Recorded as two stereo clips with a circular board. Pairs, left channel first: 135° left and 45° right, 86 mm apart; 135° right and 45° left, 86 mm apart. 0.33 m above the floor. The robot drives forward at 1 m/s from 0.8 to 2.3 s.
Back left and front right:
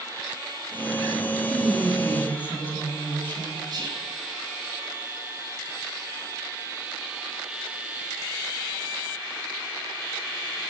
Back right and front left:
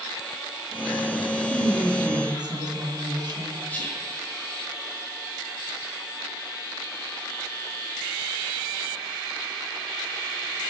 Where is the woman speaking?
55° left, 3.5 m; by 3.6 s 70° left, 3 m.